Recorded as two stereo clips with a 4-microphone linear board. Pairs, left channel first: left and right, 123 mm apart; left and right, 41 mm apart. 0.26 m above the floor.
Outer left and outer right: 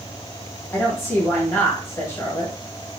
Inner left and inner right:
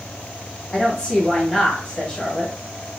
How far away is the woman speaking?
About 1.3 m.